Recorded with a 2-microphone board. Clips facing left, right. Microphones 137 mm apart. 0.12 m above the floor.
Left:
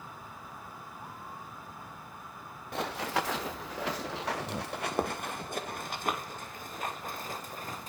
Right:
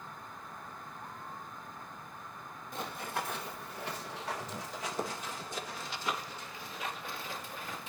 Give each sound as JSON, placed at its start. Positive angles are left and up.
{"t": 2.7, "sound": "running footsteps", "side_deg": 60, "distance_m": 1.2}